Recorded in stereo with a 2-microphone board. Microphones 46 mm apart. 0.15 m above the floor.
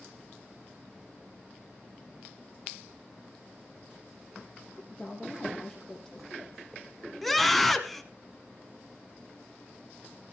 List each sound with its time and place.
4.8 s a woman speaking: 10° left (ahead or behind), 7 m
7.2 s a scream: centre (ahead or behind), 1.1 m